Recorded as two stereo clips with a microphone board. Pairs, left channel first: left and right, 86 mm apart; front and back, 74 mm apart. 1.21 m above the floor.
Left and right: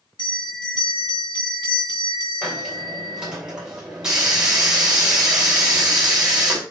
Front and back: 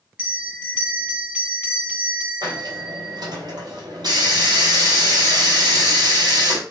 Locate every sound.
0.2 s a bell: 110° left, 2.5 m
2.4 s a hiss: 170° right, 3 m